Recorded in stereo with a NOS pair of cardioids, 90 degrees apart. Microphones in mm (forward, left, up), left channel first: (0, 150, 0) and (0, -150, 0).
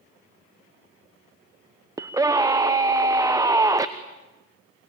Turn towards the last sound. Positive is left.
turn(degrees=-10)